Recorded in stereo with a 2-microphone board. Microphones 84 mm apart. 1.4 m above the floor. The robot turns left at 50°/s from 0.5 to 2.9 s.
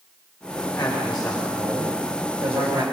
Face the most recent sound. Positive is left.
turn(degrees=-80)